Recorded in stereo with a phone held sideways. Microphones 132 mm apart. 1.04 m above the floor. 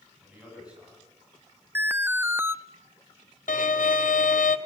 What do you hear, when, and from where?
0.2 s a man speaking: 10° right (ahead or behind), 9.5 m
1.8 s an alarm: 15° right (ahead or behind), 0.6 m
3.5 s a violin: 85° left, 1.1 m